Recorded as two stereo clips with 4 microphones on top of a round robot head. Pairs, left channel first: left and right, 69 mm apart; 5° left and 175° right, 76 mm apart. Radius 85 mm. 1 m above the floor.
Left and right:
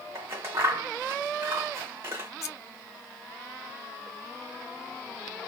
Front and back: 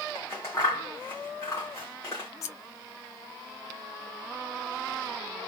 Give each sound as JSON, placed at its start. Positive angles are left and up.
{"t": 0.1, "sound": "scissors", "azimuth_deg": -60, "distance_m": 0.9}
{"t": 2.4, "sound": "scissors", "azimuth_deg": 50, "distance_m": 0.6}